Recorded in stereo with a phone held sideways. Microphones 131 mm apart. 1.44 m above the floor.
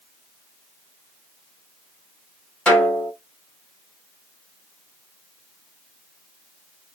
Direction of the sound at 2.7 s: 5° left (ahead or behind).